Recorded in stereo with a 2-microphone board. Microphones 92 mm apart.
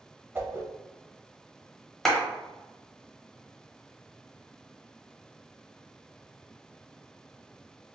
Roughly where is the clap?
Centre.